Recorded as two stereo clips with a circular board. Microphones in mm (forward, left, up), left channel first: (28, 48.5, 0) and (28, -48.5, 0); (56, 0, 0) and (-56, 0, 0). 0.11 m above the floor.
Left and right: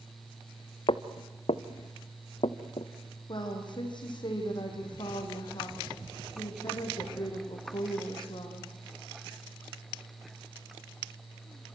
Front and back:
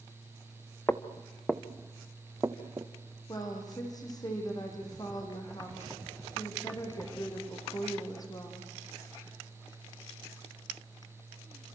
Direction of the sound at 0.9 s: 70° left.